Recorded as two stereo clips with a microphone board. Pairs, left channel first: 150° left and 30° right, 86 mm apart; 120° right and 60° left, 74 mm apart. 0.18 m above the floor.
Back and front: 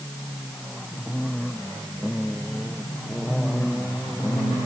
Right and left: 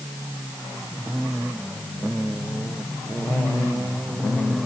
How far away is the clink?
I don't hear a clink.